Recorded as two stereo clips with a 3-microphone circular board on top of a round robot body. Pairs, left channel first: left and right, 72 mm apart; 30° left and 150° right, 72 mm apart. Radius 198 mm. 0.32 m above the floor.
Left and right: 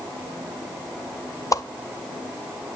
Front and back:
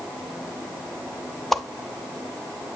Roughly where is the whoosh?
Behind left.